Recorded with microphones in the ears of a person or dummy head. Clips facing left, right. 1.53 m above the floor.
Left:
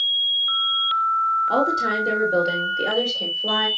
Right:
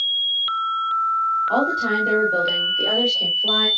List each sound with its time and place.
1.5 s a woman speaking: 20° left (ahead or behind), 3.5 m; by 3.7 s 10° left (ahead or behind), 4.5 m